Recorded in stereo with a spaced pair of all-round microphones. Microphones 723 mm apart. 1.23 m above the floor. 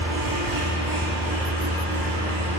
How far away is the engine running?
About 2 m.